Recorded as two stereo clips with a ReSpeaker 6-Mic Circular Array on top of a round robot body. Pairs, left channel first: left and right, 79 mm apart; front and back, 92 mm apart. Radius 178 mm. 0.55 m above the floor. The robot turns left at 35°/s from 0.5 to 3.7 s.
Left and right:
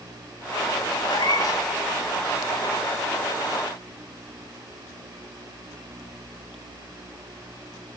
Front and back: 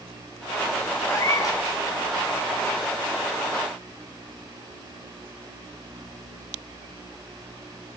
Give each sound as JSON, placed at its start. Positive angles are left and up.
{"t": 1.0, "sound": "a cat meowing", "azimuth_deg": 65, "distance_m": 4.0}